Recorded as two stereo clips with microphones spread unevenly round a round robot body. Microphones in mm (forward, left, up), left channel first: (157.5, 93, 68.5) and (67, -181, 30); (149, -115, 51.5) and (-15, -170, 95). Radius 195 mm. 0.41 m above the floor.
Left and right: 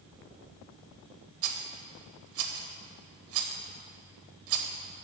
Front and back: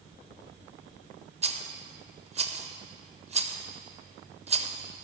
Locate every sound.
1.4 s a rattle: 100° right, 0.9 m